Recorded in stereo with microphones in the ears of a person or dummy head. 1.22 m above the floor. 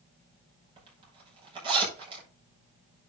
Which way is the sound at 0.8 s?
30° right (ahead or behind).